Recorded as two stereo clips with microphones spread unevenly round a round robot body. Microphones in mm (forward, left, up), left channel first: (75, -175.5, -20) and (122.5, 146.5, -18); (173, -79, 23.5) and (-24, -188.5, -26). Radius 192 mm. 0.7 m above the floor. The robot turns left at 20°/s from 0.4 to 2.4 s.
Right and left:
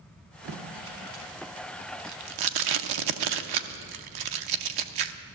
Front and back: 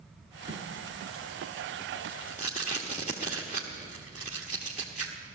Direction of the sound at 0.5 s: 140° left.